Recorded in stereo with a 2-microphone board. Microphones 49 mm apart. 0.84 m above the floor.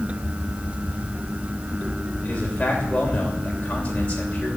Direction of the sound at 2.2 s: 25° left (ahead or behind).